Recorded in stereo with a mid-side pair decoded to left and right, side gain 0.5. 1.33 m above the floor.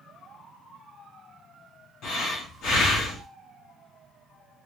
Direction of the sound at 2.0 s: 70° left.